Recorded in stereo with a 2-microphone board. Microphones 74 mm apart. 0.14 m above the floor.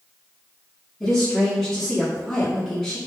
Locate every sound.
1.0 s a woman speaking: 5° left (ahead or behind), 1.1 m